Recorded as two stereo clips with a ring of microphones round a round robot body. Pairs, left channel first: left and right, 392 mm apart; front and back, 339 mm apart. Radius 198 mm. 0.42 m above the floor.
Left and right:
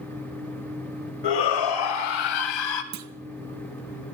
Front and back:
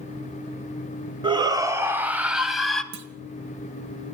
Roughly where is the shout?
Left.